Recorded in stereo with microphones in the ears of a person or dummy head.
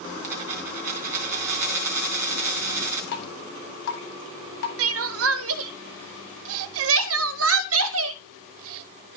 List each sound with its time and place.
0.2 s a dropped coin: 20° right (ahead or behind), 2.5 m
3.1 s dripping: 65° left (ahead or behind), 1.5 m
4.8 s crying: 80° right, 0.5 m